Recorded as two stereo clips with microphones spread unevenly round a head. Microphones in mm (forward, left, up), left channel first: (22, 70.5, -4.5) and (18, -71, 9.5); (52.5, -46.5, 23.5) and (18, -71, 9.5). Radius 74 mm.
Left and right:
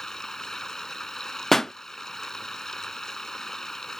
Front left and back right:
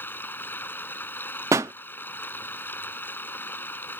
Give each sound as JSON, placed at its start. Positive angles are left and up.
{"t": 0.0, "sound": "running water", "azimuth_deg": 0}
{"t": 1.5, "sound": "a pop", "azimuth_deg": 180}